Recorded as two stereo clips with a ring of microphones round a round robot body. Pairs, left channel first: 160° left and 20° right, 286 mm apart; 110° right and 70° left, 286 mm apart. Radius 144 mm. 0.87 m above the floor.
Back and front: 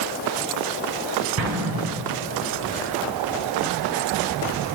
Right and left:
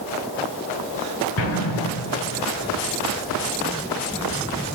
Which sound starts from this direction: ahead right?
An explosion, at 1.4 s.